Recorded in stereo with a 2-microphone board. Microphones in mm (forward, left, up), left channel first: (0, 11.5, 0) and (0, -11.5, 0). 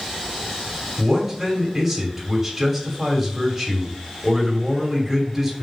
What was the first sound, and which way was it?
A man speaking, 10° right (ahead or behind).